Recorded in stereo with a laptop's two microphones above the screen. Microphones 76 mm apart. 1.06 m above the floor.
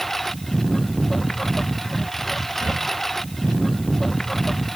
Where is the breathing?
60° right (ahead or behind).